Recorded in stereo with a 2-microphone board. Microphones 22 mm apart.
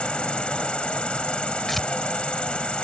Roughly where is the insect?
Left.